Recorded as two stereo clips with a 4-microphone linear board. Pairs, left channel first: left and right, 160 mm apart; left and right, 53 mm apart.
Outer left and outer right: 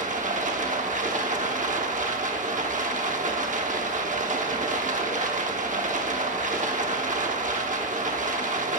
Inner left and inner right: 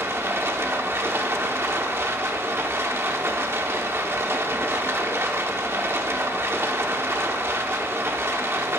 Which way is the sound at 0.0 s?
55° right (ahead or behind).